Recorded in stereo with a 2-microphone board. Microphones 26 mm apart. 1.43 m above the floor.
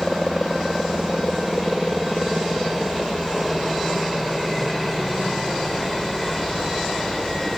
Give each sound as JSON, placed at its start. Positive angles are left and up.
{"t": 0.0, "sound": "a helicopter", "side_deg": 0}